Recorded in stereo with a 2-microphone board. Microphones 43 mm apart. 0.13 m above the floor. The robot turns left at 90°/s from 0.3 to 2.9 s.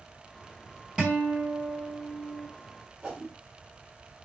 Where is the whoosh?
15° right (ahead or behind), 1.0 m.